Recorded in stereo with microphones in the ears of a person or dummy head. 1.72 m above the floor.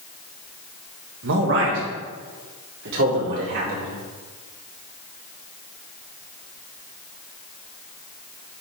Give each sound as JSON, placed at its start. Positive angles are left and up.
{"t": 1.2, "sound": "a man speaking", "side_deg": -70, "distance_m": 1.7}